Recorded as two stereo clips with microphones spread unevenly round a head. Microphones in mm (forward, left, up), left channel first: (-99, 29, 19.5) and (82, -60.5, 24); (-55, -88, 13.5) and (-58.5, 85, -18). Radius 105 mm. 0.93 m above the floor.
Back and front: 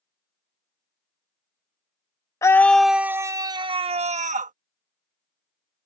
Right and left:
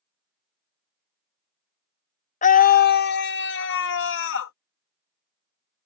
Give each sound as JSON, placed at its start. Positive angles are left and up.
{"t": 2.4, "sound": "a scream", "azimuth_deg": -135}